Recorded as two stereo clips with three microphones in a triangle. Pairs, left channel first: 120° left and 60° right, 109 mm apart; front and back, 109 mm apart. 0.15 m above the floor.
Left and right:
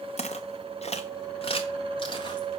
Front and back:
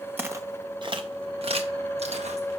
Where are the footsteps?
110° left, 0.7 m; by 2.5 s 165° left, 1.8 m.